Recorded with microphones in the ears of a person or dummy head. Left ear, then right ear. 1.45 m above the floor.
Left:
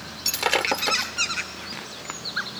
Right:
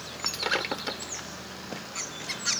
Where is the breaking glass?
25° left (ahead or behind).